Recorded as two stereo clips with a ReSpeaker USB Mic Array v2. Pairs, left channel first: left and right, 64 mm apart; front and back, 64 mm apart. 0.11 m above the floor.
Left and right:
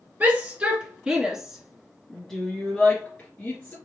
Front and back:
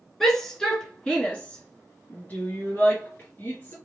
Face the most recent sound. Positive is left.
turn(degrees=40)